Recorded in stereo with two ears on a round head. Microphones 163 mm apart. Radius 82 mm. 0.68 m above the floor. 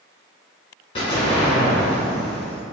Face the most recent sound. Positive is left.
turn(degrees=30)  # may be behind; listen again after turning